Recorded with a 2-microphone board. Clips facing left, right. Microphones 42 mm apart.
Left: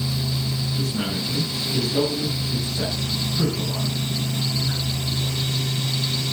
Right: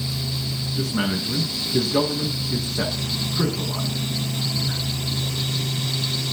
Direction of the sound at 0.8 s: 75° right (ahead or behind).